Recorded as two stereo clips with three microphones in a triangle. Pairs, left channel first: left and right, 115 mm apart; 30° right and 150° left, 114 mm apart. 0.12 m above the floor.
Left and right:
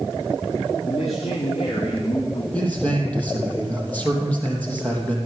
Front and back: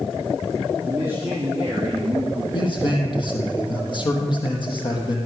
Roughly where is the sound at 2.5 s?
Ahead.